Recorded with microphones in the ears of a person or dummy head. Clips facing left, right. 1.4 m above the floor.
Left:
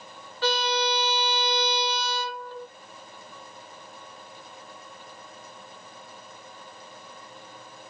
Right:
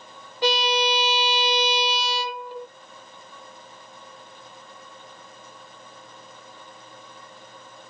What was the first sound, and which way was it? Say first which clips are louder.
A violin: right 3 dB; 20° right (ahead or behind).